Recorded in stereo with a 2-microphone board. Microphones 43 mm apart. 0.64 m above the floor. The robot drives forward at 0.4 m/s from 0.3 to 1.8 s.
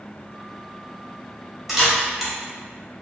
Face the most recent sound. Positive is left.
turn(degrees=-5)  # may be behind; listen again after turning